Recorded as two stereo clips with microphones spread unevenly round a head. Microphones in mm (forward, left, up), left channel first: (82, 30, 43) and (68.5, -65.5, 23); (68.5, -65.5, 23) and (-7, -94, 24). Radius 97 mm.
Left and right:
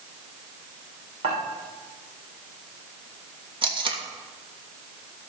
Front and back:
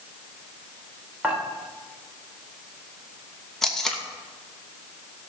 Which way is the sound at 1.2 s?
85° right.